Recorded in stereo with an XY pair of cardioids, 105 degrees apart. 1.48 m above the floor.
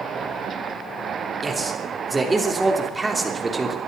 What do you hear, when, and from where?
1.4 s a man speaking: 20° right, 3.5 m